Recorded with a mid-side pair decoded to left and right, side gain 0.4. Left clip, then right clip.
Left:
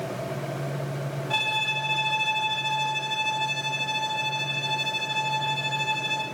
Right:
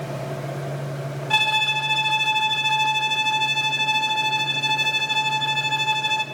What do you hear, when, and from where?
1.3 s a violin: 55° right, 1.5 m